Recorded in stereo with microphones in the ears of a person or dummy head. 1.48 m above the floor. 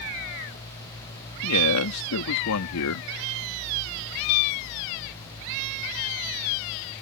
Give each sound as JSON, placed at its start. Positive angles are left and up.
{"t": 1.4, "sound": "a man speaking", "side_deg": 90}